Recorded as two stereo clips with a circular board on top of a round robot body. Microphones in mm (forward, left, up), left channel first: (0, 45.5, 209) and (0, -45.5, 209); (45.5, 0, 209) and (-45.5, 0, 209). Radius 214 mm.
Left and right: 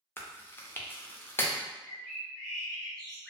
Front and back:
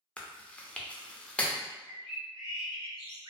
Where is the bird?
175° left, 1.6 m.